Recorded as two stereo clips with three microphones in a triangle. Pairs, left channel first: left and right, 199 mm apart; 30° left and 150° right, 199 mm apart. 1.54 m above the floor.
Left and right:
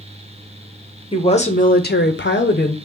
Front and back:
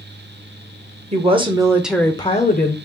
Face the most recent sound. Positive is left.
turn(degrees=55)